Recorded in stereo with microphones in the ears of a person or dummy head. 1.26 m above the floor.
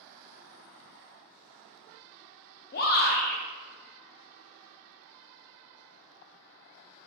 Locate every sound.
2.7 s a shout: 35° left (ahead or behind), 0.5 m